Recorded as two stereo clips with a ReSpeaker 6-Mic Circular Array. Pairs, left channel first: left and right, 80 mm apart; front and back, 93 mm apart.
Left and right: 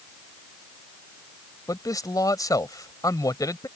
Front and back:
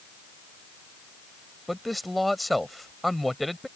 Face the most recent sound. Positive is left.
turn(degrees=90)